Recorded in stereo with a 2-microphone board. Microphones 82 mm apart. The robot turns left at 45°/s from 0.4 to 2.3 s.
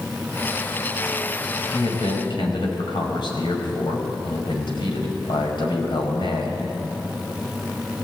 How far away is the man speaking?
About 5 m.